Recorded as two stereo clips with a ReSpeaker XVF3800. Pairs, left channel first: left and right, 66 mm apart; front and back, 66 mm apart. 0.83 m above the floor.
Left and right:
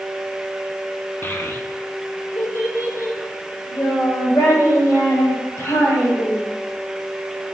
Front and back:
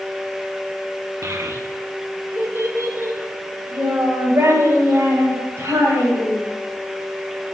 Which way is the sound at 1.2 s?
145° left.